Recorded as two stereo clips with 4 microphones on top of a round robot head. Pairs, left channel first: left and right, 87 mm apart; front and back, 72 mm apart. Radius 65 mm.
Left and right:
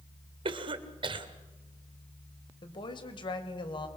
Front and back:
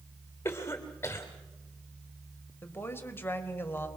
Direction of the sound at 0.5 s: 65° right.